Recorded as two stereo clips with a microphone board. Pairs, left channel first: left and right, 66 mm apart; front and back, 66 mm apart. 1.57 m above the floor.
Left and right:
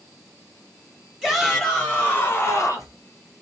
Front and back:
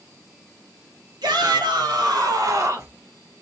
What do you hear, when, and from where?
1.2 s a shout: straight behind, 1.1 m; by 3.0 s 125° left, 0.9 m